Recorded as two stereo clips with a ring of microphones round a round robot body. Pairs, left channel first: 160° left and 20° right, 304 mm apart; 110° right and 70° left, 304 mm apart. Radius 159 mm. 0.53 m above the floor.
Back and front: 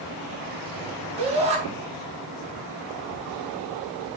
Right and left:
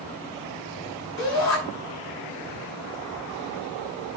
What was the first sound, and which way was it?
A shout, 95° right.